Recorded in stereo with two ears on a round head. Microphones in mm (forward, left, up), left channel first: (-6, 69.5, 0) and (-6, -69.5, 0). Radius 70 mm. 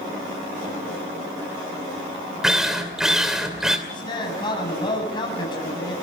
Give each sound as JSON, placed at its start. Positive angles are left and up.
{"t": 2.4, "sound": "a drill", "side_deg": -5, "distance_m": 2.5}
{"t": 3.9, "sound": "a man speaking", "side_deg": 35, "distance_m": 7.5}